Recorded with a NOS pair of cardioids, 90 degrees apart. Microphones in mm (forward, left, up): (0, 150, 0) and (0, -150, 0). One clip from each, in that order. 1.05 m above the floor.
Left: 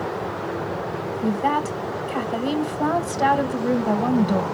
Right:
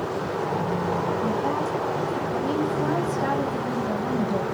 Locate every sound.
1.2 s a woman speaking: 65° left, 0.9 m